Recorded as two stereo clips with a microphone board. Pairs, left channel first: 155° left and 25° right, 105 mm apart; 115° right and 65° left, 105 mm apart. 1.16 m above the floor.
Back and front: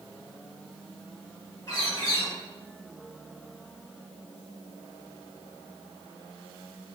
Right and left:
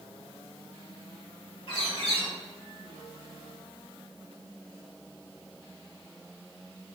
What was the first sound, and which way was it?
A bird, 150° right.